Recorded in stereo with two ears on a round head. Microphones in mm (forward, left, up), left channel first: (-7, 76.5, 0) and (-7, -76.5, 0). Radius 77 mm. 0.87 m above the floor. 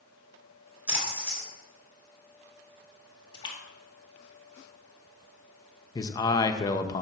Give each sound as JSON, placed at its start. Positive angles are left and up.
{"t": 0.9, "sound": "a splash", "side_deg": -10, "distance_m": 4.0}
{"t": 3.3, "sound": "a splash", "side_deg": 30, "distance_m": 1.6}
{"t": 6.0, "sound": "a man speaking", "side_deg": 20, "distance_m": 0.6}